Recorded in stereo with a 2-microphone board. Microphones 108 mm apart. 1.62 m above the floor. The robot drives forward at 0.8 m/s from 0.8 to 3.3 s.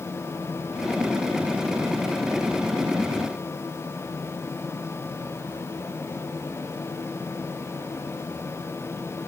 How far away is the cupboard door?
No cupboard door in this recording.